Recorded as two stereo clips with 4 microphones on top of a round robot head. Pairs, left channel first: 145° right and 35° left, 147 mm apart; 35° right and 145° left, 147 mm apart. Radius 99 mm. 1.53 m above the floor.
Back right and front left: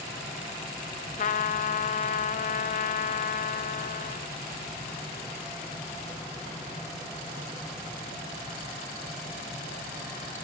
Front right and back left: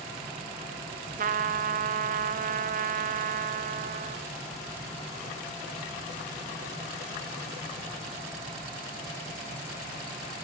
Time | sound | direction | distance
1.2 | a trumpet | 175° left | 0.7 m